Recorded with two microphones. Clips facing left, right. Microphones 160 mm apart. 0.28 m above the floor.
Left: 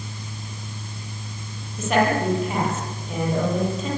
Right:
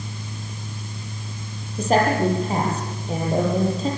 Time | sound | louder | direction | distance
1.8 | a woman speaking | right 2 dB | 35° right (ahead or behind) | 10 m